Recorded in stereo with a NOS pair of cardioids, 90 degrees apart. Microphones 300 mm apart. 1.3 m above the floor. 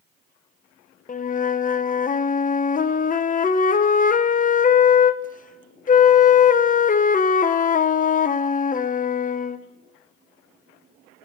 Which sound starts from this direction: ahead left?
A flute, at 1.1 s.